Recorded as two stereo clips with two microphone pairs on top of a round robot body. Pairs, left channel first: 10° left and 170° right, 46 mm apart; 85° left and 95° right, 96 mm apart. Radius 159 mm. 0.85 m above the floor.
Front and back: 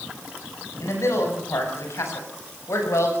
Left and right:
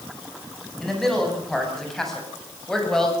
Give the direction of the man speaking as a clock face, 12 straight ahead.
12 o'clock.